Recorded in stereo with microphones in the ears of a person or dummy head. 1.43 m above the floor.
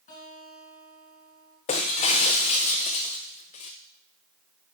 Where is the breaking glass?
25° left (ahead or behind), 0.5 m.